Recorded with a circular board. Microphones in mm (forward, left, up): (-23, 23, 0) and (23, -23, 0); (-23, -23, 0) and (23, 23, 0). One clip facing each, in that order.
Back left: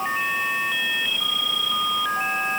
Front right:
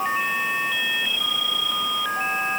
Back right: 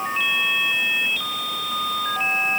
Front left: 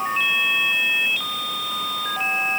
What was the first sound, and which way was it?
Only background noise.